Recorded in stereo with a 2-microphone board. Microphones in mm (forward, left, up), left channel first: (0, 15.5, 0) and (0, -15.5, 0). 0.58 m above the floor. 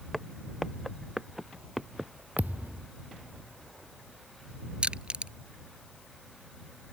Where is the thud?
70° right (ahead or behind).